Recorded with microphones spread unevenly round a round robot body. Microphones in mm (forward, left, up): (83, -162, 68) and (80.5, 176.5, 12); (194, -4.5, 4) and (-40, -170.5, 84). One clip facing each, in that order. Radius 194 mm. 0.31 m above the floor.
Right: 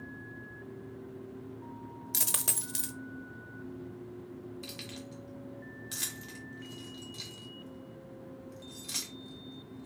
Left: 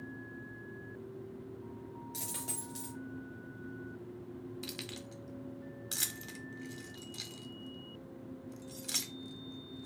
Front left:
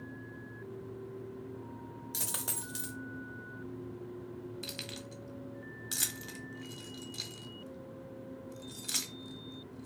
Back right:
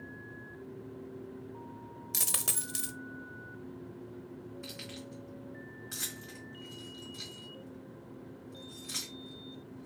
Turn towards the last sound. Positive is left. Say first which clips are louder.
# even, even
turn(degrees=40)